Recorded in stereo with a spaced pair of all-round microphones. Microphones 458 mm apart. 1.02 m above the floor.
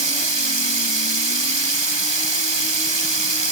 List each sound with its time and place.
0.0 s running water: 70° right (ahead or behind), 1.2 m